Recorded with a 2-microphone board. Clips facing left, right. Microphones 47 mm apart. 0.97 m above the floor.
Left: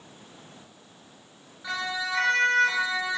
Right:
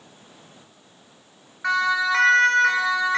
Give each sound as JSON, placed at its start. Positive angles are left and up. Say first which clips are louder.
{"t": 1.6, "sound": "a siren", "louder": "right 10 dB", "side_deg": -65, "distance_m": 8.5}